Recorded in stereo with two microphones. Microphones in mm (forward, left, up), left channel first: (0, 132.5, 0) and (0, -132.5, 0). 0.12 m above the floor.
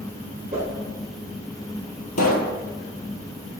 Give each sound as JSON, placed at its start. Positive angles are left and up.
{"t": 0.5, "sound": "a whoosh", "side_deg": -35, "distance_m": 2.5}
{"t": 2.2, "sound": "a pop", "side_deg": 75, "distance_m": 0.8}